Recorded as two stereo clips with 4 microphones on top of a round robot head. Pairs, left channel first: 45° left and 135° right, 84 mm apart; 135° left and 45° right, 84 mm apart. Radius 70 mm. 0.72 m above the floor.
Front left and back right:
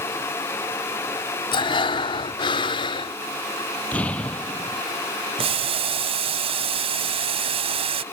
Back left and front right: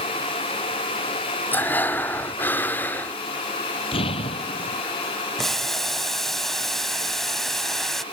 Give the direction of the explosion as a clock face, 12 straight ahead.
8 o'clock.